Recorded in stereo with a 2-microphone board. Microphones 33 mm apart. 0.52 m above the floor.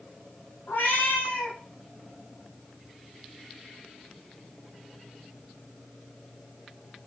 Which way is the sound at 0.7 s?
70° left (ahead or behind).